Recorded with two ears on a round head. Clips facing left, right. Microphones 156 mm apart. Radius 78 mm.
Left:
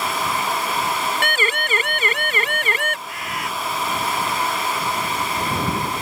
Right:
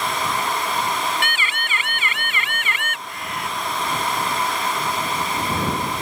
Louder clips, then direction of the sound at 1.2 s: Left 5 dB; 35° left (ahead or behind).